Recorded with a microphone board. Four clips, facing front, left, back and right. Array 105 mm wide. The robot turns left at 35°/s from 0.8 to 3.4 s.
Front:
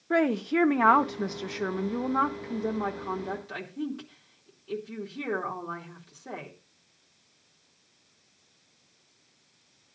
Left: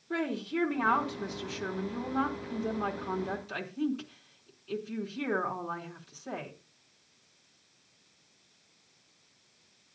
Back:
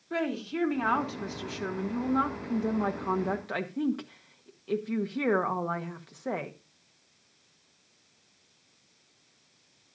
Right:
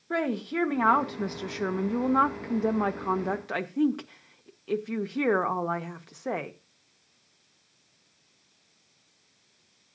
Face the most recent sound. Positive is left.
turn(degrees=-115)